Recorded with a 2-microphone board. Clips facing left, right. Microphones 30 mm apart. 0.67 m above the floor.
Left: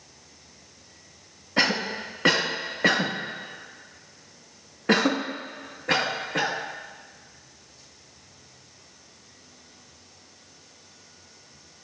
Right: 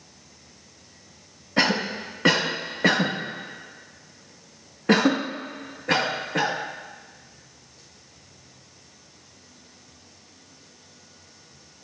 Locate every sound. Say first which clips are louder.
1.6 s a cough: right 1 dB; 5° left (ahead or behind), 0.6 m